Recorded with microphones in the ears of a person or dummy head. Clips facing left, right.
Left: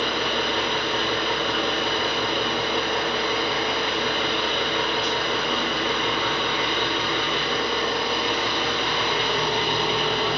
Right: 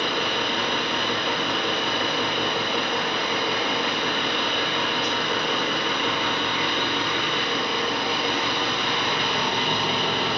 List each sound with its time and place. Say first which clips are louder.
0.0 s an engine running: left 1 dB; 15° right (ahead or behind), 1.0 m